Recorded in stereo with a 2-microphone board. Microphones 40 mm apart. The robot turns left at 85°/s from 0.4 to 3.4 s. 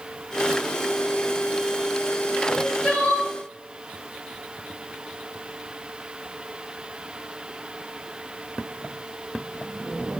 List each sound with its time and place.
2.5 s crying: 165° right, 3 m; by 3.3 s 120° left, 3 m